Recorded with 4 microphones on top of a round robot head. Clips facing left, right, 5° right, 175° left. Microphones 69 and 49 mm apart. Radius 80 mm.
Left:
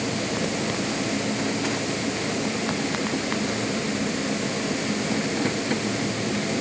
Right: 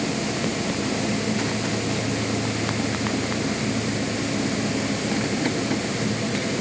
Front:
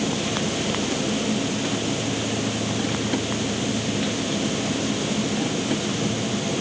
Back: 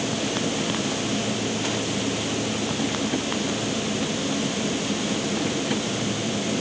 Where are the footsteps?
No footsteps in this recording.